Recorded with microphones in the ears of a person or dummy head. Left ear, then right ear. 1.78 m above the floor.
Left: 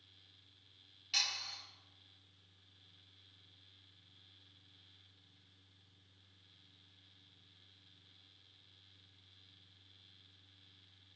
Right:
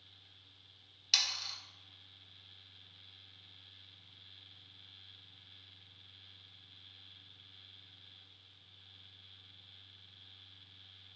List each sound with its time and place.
1.1 s sawing: 50° right (ahead or behind), 1.3 m